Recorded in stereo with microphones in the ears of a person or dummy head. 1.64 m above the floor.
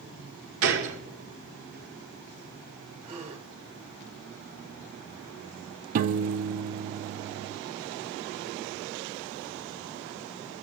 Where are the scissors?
I don't hear scissors.